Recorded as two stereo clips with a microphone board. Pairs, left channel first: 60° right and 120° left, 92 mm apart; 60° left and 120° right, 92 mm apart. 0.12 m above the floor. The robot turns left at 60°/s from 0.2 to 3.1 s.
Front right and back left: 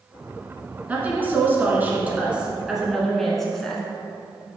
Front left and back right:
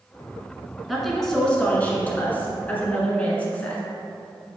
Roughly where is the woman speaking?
Behind left.